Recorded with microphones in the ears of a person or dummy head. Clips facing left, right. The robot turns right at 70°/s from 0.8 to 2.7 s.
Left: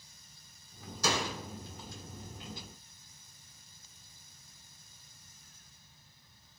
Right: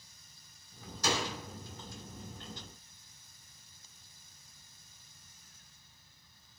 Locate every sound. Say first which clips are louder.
1.0 s a door slam: left 1 dB; 85° left, 3.5 m; by 1.4 s 60° left (ahead or behind), 3.5 m